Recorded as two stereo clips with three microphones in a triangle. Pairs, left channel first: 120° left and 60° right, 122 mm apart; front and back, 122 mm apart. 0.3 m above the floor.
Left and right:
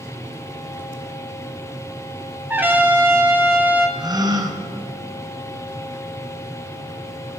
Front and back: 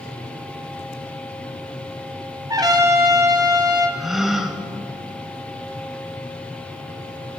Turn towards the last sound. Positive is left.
turn(degrees=-95)